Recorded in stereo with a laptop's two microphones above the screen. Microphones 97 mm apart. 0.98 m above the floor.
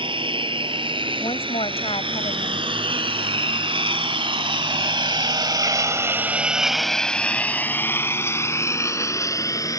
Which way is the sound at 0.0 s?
60° right (ahead or behind).